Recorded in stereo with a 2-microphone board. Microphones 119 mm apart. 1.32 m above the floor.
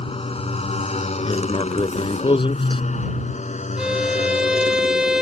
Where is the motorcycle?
50° left (ahead or behind); by 5.2 s 75° left (ahead or behind).